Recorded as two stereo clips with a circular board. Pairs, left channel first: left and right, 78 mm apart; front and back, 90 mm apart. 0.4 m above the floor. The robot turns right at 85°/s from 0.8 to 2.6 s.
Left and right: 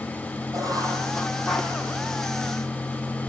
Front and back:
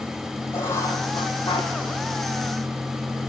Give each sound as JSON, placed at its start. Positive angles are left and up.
{"t": 0.5, "sound": "writing", "azimuth_deg": -55, "distance_m": 4.5}